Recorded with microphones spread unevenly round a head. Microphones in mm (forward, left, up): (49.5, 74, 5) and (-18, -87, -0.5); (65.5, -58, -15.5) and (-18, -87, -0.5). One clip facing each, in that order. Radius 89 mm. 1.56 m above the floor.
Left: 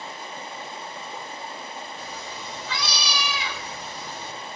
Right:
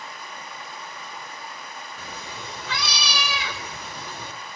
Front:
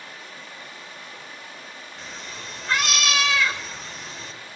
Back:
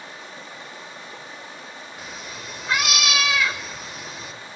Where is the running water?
130° left, 1.7 m.